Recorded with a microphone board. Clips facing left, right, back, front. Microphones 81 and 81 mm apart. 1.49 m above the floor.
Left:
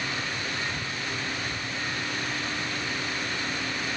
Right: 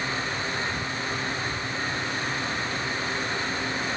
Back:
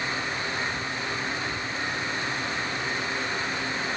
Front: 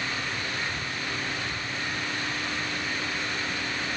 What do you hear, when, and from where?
Only background noise.